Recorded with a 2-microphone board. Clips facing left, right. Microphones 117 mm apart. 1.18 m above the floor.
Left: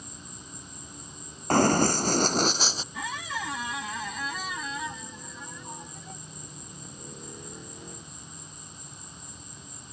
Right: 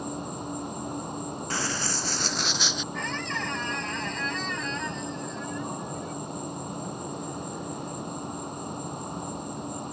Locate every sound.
0.0 s an insect: 60° right (ahead or behind)
1.5 s running footsteps: 50° left (ahead or behind); by 2.8 s 35° left (ahead or behind)
2.9 s a squeak: 10° left (ahead or behind)